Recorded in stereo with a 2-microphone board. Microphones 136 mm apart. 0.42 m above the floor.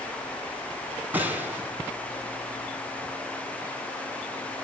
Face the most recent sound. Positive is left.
turn(degrees=-15)  # may be behind; listen again after turning